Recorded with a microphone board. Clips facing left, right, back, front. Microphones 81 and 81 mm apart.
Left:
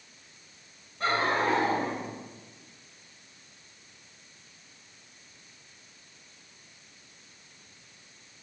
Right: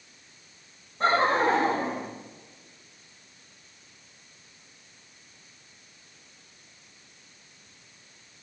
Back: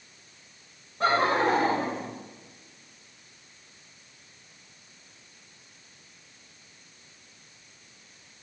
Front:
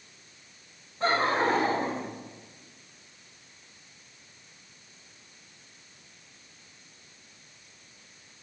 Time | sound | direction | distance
1.0 | laughter | 155° right | 10 m